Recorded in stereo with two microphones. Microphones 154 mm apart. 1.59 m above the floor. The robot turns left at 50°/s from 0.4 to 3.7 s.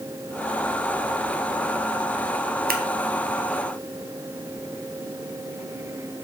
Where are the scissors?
75° right (ahead or behind), 1.2 m; by 2.8 s 80° right, 1.2 m.